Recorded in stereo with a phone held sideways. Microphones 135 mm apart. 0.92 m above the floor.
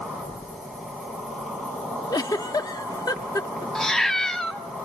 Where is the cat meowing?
5° left (ahead or behind), 0.7 m.